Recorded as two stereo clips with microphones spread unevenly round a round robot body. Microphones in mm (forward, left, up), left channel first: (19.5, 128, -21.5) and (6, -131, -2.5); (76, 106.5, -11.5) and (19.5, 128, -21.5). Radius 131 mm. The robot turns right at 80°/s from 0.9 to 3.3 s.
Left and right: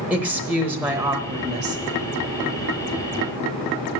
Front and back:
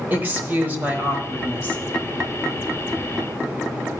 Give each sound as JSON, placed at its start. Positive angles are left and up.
{"t": 0.1, "sound": "a woman speaking", "azimuth_deg": 180, "distance_m": 1.0}